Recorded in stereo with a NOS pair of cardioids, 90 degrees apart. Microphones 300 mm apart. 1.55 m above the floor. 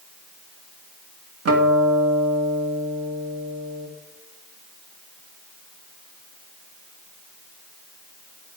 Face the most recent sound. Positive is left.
turn(degrees=-55)